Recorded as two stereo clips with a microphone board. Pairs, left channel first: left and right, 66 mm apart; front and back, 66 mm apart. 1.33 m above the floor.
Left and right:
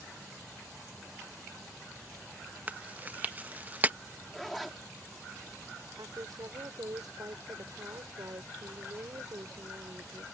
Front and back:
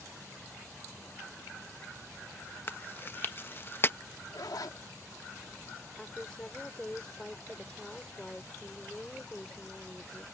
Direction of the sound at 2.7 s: 35° right.